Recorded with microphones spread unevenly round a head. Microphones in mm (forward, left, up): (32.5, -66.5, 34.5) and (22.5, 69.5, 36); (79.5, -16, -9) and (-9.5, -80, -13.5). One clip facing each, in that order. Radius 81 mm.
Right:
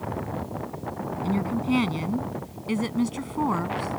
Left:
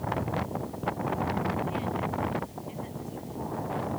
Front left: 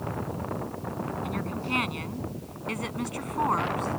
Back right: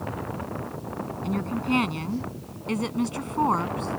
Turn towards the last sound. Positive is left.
turn(degrees=-80)